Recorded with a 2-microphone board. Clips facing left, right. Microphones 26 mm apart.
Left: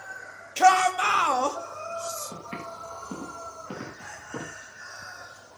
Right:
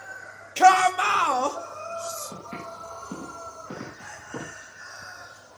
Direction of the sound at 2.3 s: 75° left (ahead or behind).